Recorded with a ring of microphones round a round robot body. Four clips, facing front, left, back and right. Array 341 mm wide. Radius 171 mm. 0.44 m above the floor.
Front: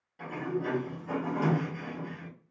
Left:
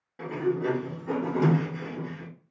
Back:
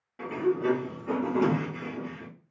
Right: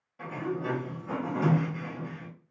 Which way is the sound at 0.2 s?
125° left.